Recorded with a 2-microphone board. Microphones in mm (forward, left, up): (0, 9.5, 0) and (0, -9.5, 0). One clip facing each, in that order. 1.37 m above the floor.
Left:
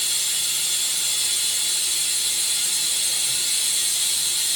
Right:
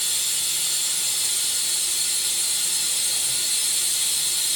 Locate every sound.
0.0 s running water: 10° left (ahead or behind), 2.5 m